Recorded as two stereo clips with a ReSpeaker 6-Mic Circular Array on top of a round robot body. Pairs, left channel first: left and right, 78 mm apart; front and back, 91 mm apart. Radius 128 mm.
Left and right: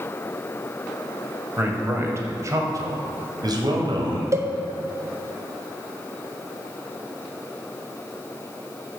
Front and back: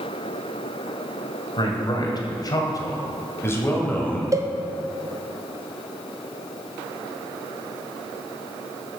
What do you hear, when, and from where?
1.6 s a man speaking: 25° right, 2 m; by 4.2 s 75° right, 2 m
4.3 s a cowbell: 135° right, 1.0 m